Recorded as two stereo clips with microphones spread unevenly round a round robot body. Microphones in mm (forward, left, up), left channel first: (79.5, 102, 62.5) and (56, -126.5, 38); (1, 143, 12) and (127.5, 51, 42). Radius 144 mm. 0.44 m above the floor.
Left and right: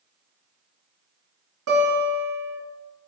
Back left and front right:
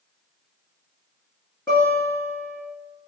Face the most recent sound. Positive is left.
turn(degrees=-135)